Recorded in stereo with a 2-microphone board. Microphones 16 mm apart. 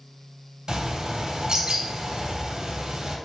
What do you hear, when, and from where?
0.7 s a bird: 40° right (ahead or behind), 3 m